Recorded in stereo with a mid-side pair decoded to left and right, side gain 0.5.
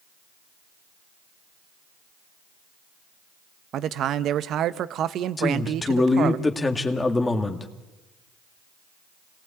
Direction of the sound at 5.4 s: 20° left.